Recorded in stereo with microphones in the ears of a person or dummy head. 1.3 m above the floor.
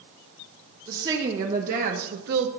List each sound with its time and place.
0.9 s a woman speaking: 30° right (ahead or behind), 1.8 m; by 2.5 s 65° right (ahead or behind), 1.0 m